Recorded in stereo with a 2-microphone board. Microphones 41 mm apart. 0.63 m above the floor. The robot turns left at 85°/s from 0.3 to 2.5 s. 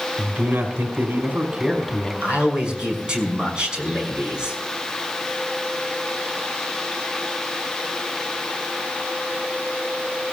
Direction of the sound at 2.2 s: 45° right (ahead or behind).